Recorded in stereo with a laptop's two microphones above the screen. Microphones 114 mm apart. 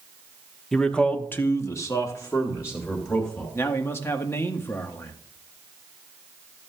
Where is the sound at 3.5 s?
20° left (ahead or behind), 1.4 m.